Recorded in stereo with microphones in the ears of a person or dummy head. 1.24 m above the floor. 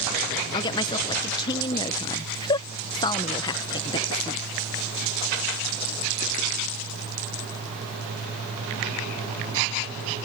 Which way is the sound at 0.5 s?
25° left (ahead or behind).